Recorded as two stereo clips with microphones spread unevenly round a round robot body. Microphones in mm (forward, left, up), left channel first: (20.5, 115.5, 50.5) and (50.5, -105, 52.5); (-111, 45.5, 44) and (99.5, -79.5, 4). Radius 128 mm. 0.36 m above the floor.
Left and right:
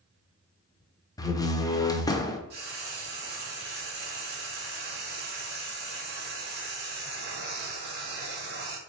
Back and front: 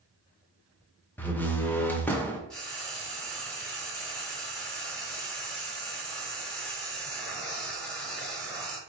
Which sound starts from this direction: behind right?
Frying, at 2.5 s.